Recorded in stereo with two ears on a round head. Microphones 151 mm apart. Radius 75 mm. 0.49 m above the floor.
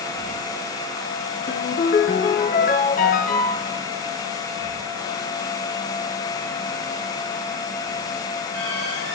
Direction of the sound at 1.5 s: 50° left (ahead or behind).